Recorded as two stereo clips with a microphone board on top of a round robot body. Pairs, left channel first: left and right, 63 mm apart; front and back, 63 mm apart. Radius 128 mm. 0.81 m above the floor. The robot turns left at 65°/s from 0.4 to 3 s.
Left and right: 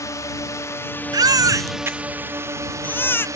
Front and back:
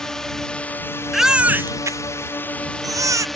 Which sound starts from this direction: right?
A baby crying, at 1.1 s.